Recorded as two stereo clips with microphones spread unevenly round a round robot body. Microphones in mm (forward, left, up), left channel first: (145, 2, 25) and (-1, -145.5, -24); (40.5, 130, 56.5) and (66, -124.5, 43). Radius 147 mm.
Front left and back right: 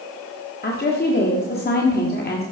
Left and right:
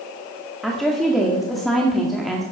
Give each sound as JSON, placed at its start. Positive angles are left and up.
{"t": 0.6, "sound": "a woman speaking", "azimuth_deg": 5, "distance_m": 1.8}